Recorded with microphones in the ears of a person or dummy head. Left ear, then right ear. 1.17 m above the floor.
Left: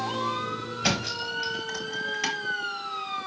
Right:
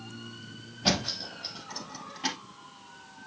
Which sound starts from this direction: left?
A thud, at 0.8 s.